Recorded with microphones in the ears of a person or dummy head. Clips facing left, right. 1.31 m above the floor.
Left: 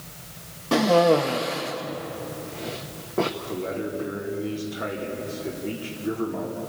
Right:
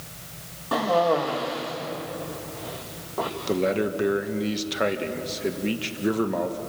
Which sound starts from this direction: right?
A man speaking, at 3.5 s.